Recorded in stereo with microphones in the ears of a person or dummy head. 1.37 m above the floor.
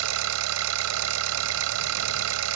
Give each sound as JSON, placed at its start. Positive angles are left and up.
{"t": 0.0, "sound": "an engine running", "side_deg": -85}